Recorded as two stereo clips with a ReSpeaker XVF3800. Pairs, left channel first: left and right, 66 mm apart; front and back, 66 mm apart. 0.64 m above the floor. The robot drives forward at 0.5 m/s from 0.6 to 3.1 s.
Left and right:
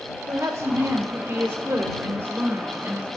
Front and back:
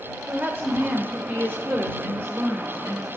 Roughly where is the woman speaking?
Behind right.